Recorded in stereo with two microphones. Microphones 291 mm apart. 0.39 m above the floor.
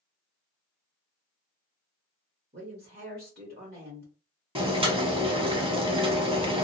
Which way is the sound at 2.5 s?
35° right (ahead or behind).